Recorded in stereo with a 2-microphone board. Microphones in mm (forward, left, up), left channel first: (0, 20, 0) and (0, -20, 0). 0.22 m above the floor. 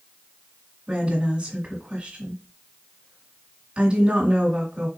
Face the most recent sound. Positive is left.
turn(degrees=-20)  # may be behind; listen again after turning